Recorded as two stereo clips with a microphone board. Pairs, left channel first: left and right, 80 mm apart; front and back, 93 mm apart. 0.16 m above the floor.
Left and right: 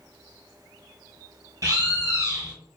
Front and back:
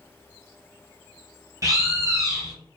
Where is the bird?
125° right, 0.8 m.